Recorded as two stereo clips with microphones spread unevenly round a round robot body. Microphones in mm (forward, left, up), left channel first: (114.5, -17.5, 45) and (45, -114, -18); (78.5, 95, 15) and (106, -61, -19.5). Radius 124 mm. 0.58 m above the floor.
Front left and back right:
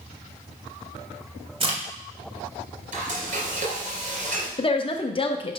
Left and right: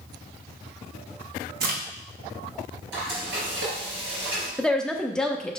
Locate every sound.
1.6 s a crack: 100° right, 2.0 m
2.9 s frying: 110° right, 3.5 m
4.6 s a woman speaking: 5° right, 0.8 m